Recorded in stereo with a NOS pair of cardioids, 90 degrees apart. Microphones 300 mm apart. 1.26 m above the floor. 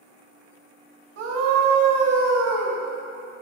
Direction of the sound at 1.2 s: 55° right.